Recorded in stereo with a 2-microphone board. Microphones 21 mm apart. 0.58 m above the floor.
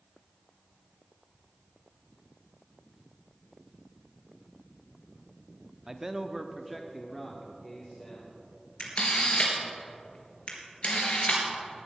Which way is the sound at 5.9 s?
25° right (ahead or behind).